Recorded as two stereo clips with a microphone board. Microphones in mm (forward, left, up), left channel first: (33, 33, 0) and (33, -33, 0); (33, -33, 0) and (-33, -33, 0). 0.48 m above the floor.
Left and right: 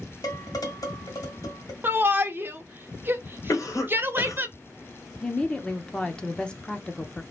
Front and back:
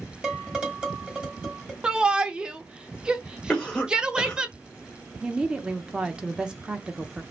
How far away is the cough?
About 1.8 m.